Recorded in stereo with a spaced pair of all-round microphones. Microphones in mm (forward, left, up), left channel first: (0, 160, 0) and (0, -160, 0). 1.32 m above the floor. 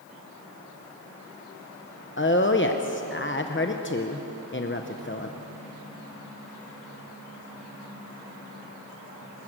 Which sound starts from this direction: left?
A woman speaking, at 2.2 s.